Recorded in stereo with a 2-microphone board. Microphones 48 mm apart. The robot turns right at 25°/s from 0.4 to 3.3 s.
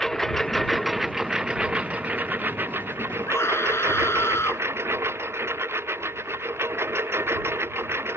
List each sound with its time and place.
0.0 s a lawn mower: 5° left (ahead or behind); by 8.2 s 60° right (ahead or behind)
3.3 s a scream: 65° left (ahead or behind)